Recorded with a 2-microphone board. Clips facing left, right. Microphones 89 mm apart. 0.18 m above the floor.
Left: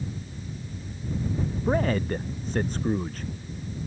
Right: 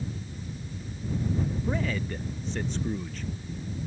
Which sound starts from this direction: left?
A man speaking, at 1.7 s.